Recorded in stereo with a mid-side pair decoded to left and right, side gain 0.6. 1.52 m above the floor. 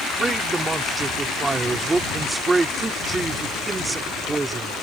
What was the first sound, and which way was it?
A man speaking, 25° right.